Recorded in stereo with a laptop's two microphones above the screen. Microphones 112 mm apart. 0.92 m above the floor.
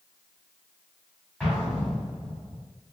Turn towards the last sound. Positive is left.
turn(degrees=0)  # may be behind; listen again after turning